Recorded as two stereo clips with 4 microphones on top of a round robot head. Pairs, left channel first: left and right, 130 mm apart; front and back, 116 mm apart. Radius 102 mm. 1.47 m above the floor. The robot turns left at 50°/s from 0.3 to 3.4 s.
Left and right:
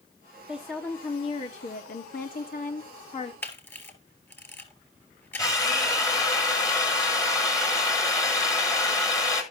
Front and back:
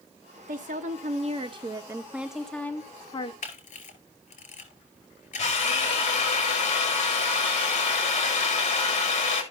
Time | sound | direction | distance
0.5 | a woman speaking | 170° right | 0.9 m
3.4 | a camera shutter | 15° left | 3 m
5.4 | a drill | 25° left | 2.5 m